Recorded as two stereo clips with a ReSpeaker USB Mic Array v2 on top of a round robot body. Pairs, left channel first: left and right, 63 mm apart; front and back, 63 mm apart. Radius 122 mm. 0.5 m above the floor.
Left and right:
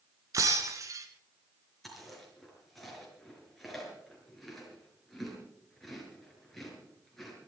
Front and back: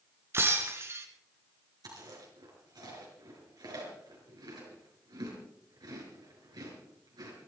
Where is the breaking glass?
125° right, 1.7 m.